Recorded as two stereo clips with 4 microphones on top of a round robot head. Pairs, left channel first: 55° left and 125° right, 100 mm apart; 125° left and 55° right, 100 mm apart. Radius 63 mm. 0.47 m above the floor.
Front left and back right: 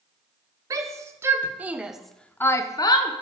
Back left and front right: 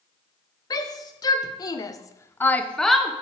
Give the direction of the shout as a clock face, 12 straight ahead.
6 o'clock.